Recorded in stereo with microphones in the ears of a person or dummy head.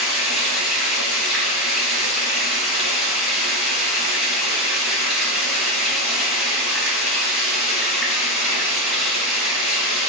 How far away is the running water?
About 1.6 m.